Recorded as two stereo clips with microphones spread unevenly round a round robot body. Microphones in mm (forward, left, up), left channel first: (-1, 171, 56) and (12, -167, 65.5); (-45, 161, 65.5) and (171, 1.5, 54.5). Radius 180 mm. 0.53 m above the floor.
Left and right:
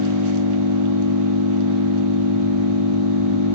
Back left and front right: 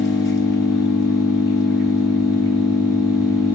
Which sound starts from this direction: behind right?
An engine running, at 0.0 s.